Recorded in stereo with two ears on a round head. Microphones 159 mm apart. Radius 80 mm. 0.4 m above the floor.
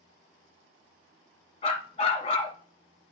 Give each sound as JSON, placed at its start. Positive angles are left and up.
{"t": 1.6, "sound": "a dog barking", "side_deg": 35, "distance_m": 1.7}